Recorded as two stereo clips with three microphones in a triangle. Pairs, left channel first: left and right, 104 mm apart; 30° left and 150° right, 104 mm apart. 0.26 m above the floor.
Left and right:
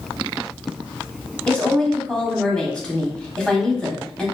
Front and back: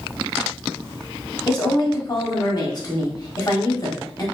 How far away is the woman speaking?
About 1.3 m.